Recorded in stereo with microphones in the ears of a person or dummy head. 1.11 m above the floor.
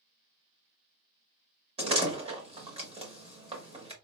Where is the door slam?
25° right (ahead or behind), 0.8 m.